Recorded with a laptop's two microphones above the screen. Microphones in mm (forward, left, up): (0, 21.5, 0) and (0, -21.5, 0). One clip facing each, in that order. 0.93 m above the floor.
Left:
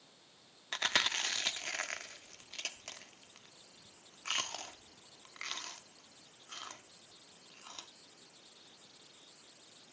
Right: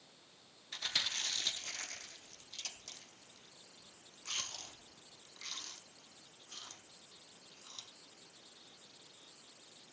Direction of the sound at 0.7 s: 60° left (ahead or behind).